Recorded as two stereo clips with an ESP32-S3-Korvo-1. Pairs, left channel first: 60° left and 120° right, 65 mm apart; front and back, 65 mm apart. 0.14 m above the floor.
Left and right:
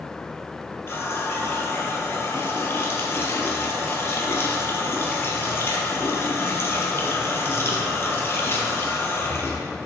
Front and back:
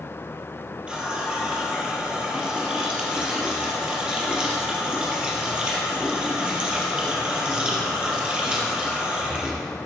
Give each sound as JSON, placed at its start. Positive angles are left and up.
{"t": 0.9, "sound": "a running tap", "azimuth_deg": 105, "distance_m": 2.5}